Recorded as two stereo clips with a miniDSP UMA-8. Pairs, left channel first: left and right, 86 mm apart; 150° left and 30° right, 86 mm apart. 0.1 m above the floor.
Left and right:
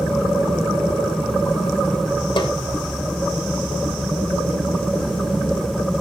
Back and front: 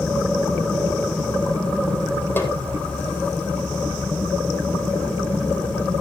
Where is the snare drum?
85° left, 3 m.